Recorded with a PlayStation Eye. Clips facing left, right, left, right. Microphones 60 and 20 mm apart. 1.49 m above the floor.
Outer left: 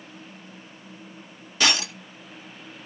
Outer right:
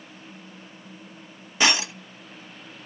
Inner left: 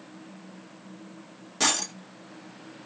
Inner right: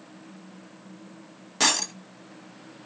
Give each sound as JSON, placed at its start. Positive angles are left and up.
{"t": 1.6, "sound": "breaking glass", "side_deg": -20, "distance_m": 1.0}